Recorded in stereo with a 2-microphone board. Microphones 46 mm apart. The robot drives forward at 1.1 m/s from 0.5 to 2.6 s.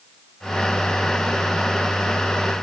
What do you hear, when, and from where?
Only background noise.